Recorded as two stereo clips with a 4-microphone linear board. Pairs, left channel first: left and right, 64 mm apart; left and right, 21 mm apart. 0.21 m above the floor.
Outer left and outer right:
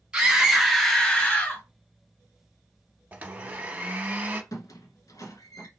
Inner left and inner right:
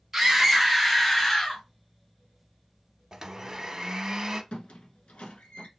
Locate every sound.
0.1 s a scream: 15° right (ahead or behind), 1.5 m; by 1.6 s 30° left (ahead or behind), 1.2 m
3.1 s a blender: 25° right (ahead or behind), 0.7 m
4.5 s a squeak: 65° left (ahead or behind), 0.7 m